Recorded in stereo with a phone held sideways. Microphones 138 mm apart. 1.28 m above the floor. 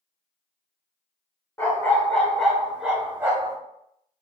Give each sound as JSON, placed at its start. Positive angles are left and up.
{"t": 1.6, "sound": "a dog barking", "side_deg": 20, "distance_m": 1.2}